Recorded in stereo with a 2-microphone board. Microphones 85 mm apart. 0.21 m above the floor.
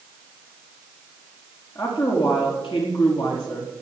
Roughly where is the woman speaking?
Left.